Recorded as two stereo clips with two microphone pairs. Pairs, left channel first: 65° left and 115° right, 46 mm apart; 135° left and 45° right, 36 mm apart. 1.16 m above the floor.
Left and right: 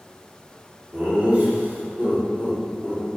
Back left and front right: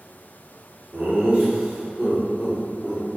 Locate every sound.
0.9 s laughter: 65° right, 0.9 m; by 3.0 s 90° right, 2.0 m